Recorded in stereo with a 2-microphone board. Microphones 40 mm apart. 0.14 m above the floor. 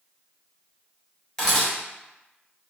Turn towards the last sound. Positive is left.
turn(degrees=10)  # may be behind; listen again after turning